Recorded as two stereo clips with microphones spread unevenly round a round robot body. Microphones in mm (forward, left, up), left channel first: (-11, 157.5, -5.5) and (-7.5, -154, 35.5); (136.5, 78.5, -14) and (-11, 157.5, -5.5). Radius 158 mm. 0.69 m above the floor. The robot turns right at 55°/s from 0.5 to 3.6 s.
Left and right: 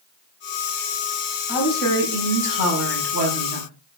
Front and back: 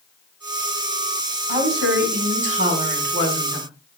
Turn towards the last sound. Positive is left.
turn(degrees=-105)